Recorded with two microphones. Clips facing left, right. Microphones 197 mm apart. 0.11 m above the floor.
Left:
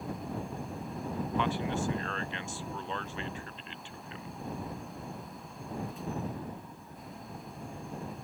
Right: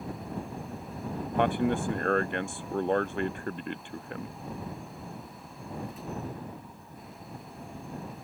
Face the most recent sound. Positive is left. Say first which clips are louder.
# right 8 dB
turn(degrees=-55)  # may be behind; listen again after turning